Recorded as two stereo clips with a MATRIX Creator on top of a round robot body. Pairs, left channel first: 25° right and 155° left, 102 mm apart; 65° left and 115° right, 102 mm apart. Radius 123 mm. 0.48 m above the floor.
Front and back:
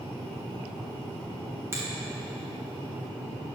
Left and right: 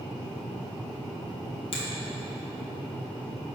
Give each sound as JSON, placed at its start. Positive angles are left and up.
{"t": 1.7, "sound": "a finger snap", "azimuth_deg": 95, "distance_m": 3.5}